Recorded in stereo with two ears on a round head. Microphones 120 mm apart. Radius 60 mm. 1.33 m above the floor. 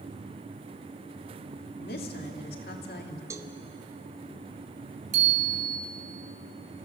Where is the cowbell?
25° right (ahead or behind), 1.0 m.